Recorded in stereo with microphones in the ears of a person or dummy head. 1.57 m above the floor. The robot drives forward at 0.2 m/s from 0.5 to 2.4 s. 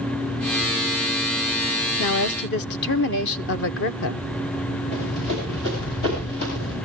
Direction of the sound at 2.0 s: 60° left (ahead or behind).